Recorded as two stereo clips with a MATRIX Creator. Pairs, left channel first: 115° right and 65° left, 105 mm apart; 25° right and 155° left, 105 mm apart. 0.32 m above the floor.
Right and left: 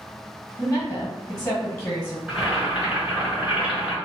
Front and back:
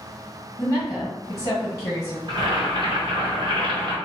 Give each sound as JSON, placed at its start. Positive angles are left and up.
{"t": 0.6, "sound": "a woman speaking", "azimuth_deg": -65, "distance_m": 1.2}
{"t": 2.3, "sound": "boiling", "azimuth_deg": 145, "distance_m": 1.7}